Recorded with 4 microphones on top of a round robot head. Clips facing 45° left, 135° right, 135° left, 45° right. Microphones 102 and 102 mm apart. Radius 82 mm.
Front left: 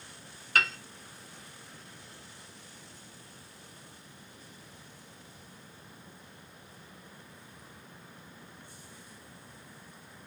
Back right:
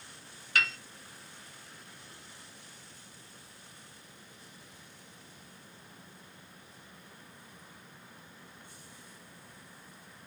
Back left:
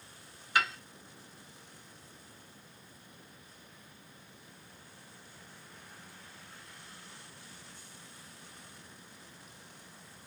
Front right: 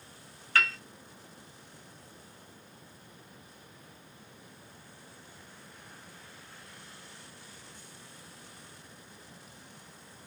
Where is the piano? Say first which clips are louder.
Front left 3 dB, even; 65° left, 0.7 m.